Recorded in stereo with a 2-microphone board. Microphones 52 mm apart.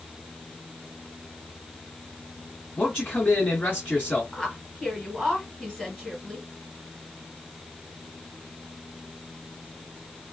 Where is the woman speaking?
5° left (ahead or behind), 1.6 m.